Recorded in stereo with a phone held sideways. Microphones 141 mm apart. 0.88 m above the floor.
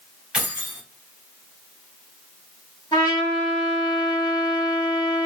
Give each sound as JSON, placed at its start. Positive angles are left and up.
{"t": 0.3, "sound": "keys jangling", "side_deg": -5, "distance_m": 1.3}
{"t": 2.9, "sound": "a trumpet", "side_deg": 35, "distance_m": 1.6}